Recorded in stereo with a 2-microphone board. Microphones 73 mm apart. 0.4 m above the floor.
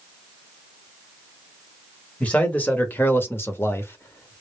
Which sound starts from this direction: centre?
A man speaking, at 2.2 s.